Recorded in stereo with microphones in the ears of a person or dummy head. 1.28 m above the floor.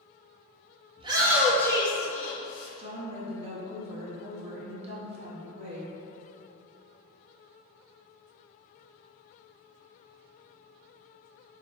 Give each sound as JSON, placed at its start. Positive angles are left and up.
{"t": 1.0, "sound": "a shout", "side_deg": -30, "distance_m": 0.9}
{"t": 2.8, "sound": "a woman speaking", "side_deg": -35, "distance_m": 0.7}